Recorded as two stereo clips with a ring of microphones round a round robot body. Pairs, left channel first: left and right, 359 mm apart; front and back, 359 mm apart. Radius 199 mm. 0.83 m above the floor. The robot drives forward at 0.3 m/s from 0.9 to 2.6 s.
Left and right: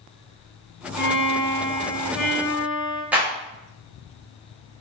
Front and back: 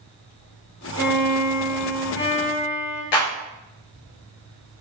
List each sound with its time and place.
1.0 s a violin: 40° left, 1.3 m; by 3.0 s 60° left, 1.0 m
3.1 s a clap: 5° right, 0.9 m